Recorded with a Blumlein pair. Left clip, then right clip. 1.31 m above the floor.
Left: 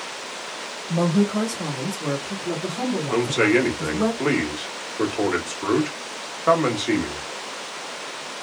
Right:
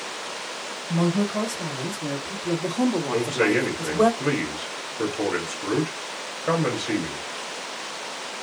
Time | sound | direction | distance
0.9 | a woman speaking | 40° left | 1.6 m
3.1 | a man speaking | 45° left | 1.3 m